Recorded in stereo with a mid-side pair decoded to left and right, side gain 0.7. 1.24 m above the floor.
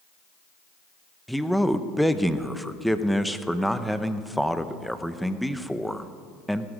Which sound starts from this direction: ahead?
A man speaking, at 1.3 s.